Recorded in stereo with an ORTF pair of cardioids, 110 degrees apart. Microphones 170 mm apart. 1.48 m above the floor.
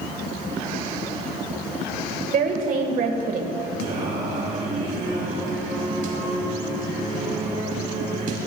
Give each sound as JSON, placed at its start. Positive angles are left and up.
{"t": 2.3, "sound": "a woman speaking", "azimuth_deg": -55, "distance_m": 1.5}
{"t": 3.8, "sound": "singing", "azimuth_deg": -55, "distance_m": 2.5}